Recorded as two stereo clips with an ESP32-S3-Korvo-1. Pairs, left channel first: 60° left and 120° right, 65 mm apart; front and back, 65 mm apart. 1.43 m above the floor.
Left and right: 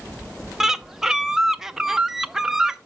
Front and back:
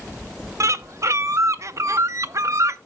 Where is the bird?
160° left, 0.5 m.